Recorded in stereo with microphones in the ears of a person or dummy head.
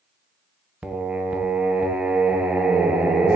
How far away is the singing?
About 0.6 m.